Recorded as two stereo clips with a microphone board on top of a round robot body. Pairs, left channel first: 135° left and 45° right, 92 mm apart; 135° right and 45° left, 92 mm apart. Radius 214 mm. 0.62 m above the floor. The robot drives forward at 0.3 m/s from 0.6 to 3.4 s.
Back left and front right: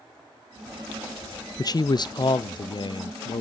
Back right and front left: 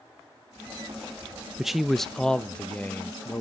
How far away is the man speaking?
About 0.8 m.